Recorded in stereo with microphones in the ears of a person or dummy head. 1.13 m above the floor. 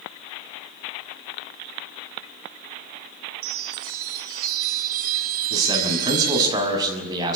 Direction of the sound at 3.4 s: 50° right (ahead or behind).